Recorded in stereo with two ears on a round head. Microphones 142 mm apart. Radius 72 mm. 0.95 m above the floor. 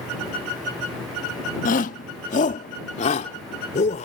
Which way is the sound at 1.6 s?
50° left (ahead or behind).